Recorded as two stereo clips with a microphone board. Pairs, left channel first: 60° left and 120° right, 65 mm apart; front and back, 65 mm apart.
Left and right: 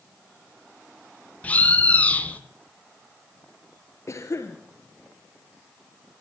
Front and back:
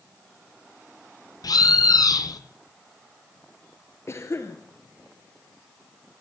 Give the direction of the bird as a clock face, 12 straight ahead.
12 o'clock.